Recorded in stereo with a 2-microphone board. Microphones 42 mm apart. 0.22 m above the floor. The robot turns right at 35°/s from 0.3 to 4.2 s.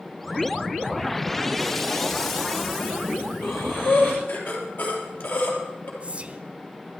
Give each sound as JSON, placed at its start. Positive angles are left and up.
{"t": 3.4, "sound": "breathing", "side_deg": 80, "distance_m": 3.5}
{"t": 6.0, "sound": "whispering", "side_deg": -35, "distance_m": 1.2}